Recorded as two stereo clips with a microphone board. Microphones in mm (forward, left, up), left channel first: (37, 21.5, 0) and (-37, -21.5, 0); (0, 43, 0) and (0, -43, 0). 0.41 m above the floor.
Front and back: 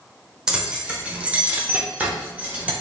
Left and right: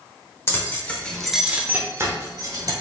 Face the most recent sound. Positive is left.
turn(degrees=-80)